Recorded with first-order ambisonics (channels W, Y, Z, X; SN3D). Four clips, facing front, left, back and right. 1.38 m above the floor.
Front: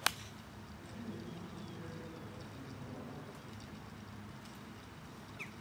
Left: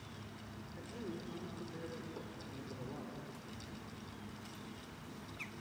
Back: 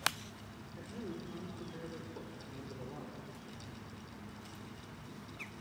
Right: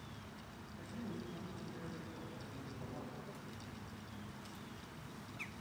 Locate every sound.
0.8 s a man speaking: 140° left, 5 m